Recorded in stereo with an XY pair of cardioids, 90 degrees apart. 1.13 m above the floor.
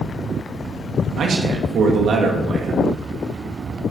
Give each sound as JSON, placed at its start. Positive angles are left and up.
{"t": 1.2, "sound": "a man speaking", "azimuth_deg": -70, "distance_m": 1.9}